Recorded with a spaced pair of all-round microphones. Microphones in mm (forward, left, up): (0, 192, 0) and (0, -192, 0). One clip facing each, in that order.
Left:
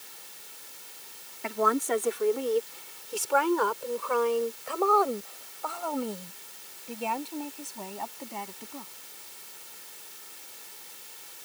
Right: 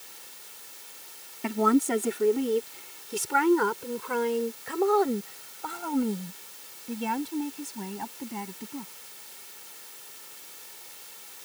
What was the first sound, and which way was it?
A woman speaking, 45° right (ahead or behind).